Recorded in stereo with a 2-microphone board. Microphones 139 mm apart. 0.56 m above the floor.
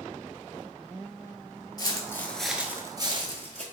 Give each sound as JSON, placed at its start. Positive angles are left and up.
{"t": 1.8, "sound": "footsteps", "side_deg": 30, "distance_m": 0.7}